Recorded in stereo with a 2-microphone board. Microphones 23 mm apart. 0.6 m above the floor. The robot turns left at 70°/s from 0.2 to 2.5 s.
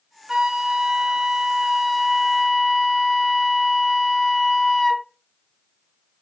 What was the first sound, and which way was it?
A flute, 20° right.